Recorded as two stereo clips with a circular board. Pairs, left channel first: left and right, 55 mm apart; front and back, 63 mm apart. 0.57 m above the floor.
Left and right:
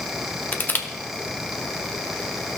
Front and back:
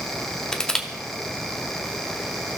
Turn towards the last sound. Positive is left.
turn(degrees=70)